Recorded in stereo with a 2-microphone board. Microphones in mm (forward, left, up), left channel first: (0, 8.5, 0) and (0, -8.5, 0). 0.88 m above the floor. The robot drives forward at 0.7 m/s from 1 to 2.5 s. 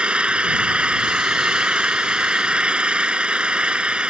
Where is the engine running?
85° right; by 4.1 s 80° right.